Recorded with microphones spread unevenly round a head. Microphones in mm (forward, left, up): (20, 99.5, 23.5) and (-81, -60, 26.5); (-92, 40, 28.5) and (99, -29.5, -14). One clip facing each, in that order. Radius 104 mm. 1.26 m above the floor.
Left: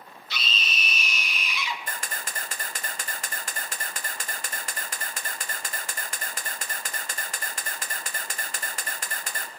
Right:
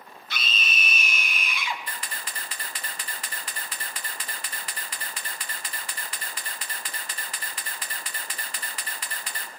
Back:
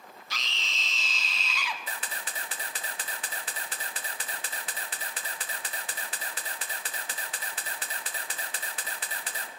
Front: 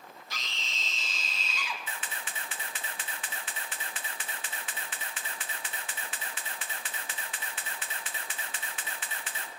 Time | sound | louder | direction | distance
0.3 | a scream | right 1 dB, back 3 dB | 165° right | 1.0 m
1.9 | a camera shutter | left 2 dB, back 2 dB | 100° left | 0.8 m